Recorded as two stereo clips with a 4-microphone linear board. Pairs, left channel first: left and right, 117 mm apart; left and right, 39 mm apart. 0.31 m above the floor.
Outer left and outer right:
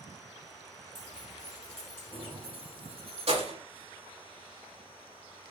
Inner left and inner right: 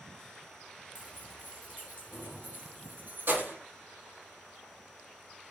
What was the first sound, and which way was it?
Keys jangling, 50° right (ahead or behind).